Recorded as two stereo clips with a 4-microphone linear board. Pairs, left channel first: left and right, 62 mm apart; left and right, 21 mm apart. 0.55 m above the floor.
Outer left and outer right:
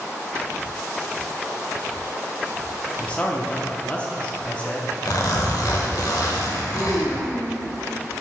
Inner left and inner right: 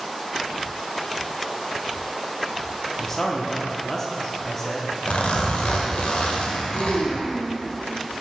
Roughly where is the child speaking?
Right.